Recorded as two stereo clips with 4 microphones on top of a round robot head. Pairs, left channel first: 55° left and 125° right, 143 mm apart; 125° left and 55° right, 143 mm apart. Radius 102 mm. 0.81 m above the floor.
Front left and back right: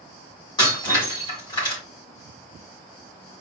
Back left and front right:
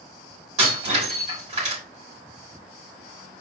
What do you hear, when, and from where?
0.6 s breaking glass: 10° right, 3.5 m